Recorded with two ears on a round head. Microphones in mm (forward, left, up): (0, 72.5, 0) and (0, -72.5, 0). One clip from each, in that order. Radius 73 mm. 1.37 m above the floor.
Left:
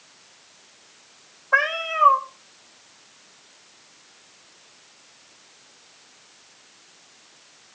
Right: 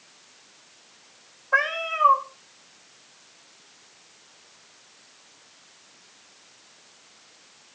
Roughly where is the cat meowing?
Centre.